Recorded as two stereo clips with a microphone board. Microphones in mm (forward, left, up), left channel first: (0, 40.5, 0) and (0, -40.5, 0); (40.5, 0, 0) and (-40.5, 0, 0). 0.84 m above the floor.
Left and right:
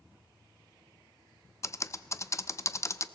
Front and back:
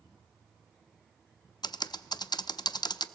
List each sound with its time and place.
1.6 s typing on a keyboard: 35° left, 0.5 m